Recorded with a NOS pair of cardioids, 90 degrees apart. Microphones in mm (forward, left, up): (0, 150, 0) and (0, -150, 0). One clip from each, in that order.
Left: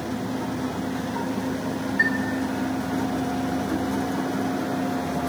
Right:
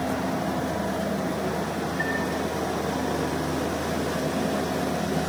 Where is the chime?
65° left, 4 m.